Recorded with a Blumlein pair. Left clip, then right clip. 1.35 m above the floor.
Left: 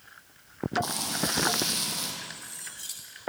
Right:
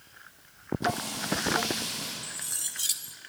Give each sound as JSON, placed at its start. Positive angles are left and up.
{"t": 0.8, "sound": "frying", "azimuth_deg": 35, "distance_m": 8.0}
{"t": 2.2, "sound": "cutlery clinking", "azimuth_deg": -60, "distance_m": 1.8}